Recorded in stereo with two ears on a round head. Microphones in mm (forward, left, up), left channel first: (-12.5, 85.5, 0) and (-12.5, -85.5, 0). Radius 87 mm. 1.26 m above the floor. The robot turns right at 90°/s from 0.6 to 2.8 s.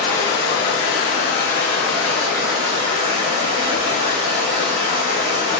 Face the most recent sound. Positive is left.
turn(degrees=-110)